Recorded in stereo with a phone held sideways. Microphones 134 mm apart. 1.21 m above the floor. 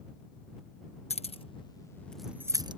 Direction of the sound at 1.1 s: 50° left (ahead or behind).